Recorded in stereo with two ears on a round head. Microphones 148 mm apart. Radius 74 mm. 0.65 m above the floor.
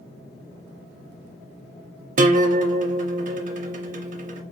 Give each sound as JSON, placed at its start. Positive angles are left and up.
{"t": 2.2, "sound": "a guitar", "side_deg": -45, "distance_m": 0.6}